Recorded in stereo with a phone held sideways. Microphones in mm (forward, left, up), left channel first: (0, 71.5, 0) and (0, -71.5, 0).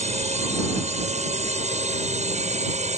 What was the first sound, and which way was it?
A drone, 50° right (ahead or behind).